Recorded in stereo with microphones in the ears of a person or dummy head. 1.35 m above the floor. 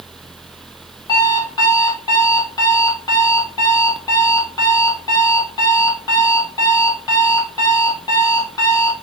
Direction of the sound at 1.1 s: 20° left (ahead or behind).